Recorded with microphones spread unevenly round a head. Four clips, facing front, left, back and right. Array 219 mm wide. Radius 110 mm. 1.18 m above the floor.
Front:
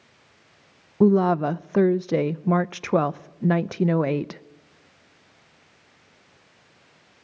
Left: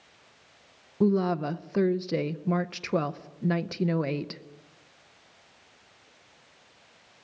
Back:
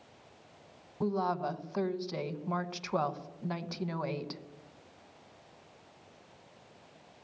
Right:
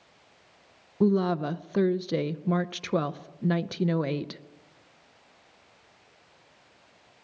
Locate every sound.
1.0 s a woman speaking: 5° right, 0.7 m